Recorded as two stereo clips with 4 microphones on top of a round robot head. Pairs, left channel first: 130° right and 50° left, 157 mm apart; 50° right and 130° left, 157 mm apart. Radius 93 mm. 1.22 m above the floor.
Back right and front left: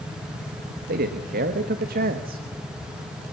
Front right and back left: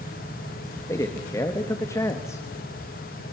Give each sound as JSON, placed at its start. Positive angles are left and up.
{"t": 0.9, "sound": "a man speaking", "azimuth_deg": 20, "distance_m": 1.5}